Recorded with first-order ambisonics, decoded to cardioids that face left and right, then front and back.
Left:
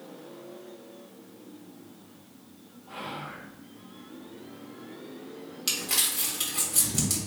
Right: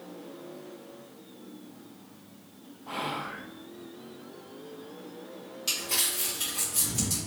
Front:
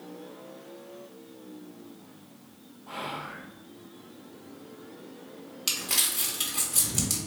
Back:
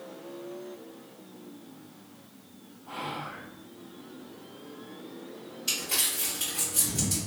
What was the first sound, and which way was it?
Whispering, 75° right.